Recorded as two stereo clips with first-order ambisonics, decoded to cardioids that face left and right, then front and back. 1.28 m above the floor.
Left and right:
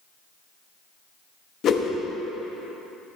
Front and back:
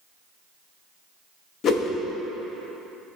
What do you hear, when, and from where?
1.6 s a whoosh: 45° left, 0.7 m